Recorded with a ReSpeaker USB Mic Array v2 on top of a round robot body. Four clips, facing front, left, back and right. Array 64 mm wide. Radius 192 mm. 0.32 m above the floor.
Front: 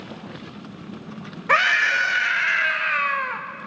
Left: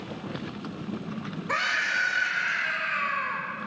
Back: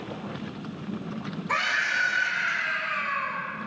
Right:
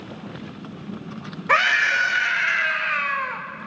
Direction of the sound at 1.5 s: 40° right.